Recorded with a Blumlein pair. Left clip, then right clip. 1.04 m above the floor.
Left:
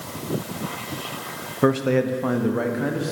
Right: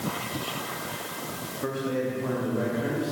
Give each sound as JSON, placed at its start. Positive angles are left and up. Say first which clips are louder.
{"t": 1.6, "sound": "a man speaking", "louder": "left 9 dB", "azimuth_deg": 55, "distance_m": 0.7}